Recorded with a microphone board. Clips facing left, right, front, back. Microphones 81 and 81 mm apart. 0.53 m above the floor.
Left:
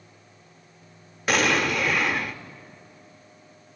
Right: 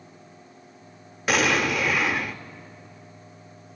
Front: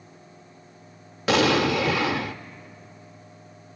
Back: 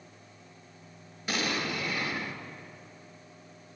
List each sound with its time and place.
1.3 s an explosion: straight ahead, 0.6 m